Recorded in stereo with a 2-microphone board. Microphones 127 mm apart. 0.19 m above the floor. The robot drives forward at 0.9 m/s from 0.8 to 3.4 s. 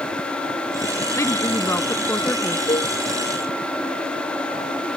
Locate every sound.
1.2 s a woman speaking: 25° left (ahead or behind); by 2.6 s 15° left (ahead or behind)
2.7 s a cowbell: 50° left (ahead or behind)